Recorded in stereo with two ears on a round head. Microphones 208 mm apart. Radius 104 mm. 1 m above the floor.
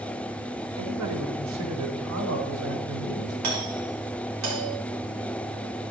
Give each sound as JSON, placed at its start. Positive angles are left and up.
{"t": 0.8, "sound": "a man speaking", "side_deg": -80, "distance_m": 3.0}
{"t": 3.4, "sound": "a doorbell", "side_deg": -75, "distance_m": 6.5}